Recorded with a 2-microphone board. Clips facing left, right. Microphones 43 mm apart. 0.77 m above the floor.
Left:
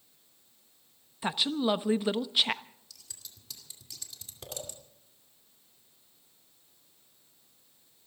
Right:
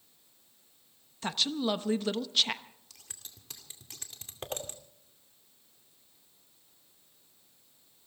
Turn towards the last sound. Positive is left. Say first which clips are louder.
# even
turn(degrees=-45)  # may be behind; listen again after turning